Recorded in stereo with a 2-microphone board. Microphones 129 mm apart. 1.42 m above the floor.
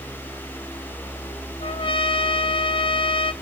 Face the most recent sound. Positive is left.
turn(degrees=40)  # may be behind; listen again after turning